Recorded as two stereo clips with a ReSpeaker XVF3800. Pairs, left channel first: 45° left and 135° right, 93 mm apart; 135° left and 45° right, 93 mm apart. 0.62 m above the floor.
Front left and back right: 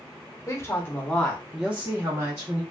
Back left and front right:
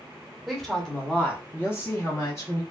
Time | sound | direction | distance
0.5 | a woman speaking | 40° left | 0.9 m